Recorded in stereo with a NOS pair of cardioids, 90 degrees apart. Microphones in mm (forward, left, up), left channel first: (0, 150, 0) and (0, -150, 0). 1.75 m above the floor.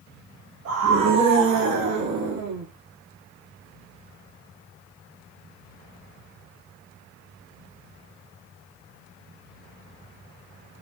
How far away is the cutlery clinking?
I don't hear cutlery clinking.